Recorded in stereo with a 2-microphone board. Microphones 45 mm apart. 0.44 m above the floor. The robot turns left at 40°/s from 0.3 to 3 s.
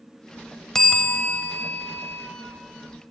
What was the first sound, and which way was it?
A bell, 170° left.